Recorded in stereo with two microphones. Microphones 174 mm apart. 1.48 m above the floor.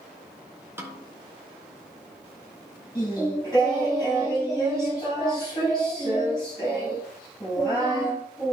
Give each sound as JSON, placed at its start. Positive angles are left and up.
{"t": 0.8, "sound": "a snare drum", "side_deg": -15, "distance_m": 1.4}
{"t": 3.0, "sound": "singing", "side_deg": 20, "distance_m": 5.5}